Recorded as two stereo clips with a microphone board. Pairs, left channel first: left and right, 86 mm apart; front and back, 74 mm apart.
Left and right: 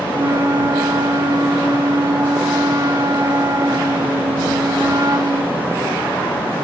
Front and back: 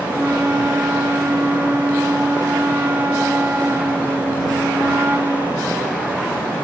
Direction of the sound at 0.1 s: 125° right.